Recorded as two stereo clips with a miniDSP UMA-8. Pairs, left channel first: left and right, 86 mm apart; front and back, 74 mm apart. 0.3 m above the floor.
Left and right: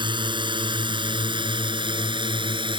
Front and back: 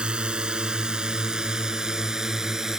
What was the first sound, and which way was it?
A drone, 105° right.